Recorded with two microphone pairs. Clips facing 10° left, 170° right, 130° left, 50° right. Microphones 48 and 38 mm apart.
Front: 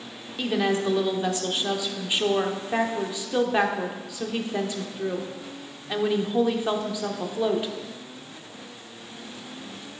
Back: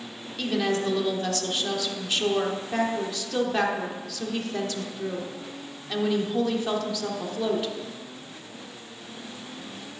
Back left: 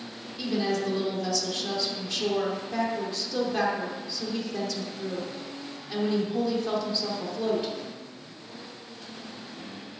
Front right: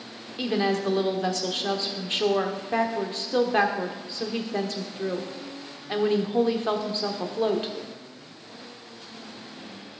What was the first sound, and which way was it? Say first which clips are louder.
A woman speaking: front 1 dB, front right 3 dB; 45° right.